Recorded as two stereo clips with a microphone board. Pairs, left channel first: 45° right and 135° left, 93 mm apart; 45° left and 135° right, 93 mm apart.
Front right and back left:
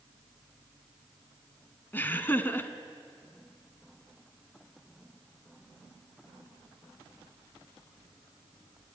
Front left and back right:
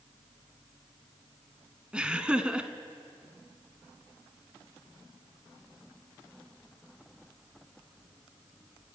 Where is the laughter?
70° right, 1.1 m.